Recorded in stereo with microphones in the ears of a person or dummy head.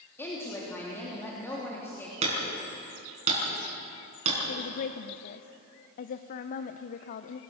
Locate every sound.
0.2 s a woman speaking: 15° left (ahead or behind), 3 m
2.2 s hammering: 40° right (ahead or behind), 5.5 m
4.5 s a woman speaking: 50° left (ahead or behind), 0.8 m